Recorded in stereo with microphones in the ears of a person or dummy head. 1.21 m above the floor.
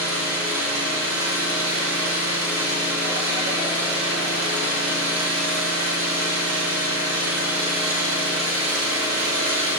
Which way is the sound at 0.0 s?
80° right.